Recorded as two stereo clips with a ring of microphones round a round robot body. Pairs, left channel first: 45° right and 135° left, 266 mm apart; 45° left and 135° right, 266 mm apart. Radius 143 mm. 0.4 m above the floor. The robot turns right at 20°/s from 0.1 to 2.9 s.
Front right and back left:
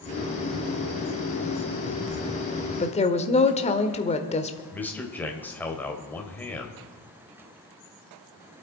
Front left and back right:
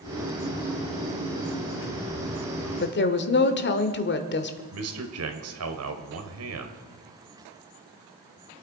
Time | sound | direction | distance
2.8 | a woman speaking | 10° left | 1.3 m
4.7 | a man speaking | 130° right | 2.5 m